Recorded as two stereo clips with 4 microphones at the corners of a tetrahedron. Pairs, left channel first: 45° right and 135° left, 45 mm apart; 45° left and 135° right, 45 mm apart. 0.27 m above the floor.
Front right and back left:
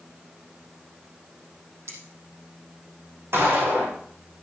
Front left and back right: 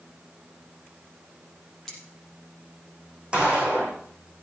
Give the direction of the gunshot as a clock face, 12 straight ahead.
7 o'clock.